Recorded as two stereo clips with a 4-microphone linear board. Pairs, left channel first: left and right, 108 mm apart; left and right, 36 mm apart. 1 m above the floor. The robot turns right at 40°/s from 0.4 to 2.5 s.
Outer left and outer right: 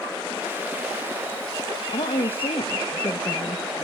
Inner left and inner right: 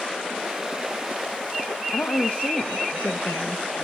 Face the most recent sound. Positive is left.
turn(degrees=60)  # may be behind; listen again after turning